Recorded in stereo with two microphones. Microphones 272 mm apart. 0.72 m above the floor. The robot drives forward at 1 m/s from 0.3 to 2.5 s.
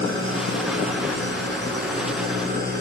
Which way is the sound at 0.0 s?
45° right (ahead or behind).